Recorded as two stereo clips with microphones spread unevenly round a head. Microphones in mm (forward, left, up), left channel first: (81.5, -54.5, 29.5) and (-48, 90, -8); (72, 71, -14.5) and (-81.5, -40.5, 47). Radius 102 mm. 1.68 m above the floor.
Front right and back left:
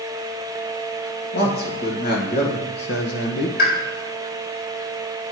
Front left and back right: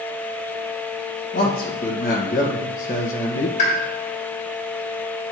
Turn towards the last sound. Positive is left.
turn(degrees=-25)